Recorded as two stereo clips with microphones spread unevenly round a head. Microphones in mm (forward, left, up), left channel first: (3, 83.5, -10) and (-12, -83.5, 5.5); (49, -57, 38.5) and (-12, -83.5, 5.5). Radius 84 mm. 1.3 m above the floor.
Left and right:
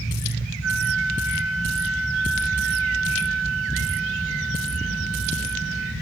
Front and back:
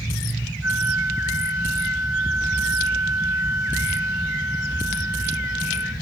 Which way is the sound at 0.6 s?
100° right.